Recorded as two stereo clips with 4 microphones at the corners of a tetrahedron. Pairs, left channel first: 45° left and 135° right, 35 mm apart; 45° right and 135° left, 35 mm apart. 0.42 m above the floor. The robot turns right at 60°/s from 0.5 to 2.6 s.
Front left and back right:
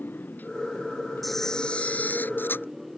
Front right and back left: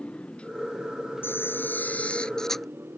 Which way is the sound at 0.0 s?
15° left.